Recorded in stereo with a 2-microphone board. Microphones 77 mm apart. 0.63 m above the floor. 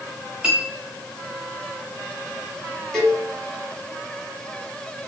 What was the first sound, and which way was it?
A clink, 15° right (ahead or behind).